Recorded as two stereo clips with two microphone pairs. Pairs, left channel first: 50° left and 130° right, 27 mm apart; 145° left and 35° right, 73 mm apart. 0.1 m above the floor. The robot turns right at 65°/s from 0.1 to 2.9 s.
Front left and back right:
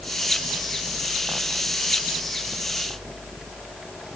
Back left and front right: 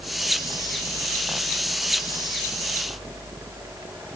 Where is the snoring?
No snoring in this recording.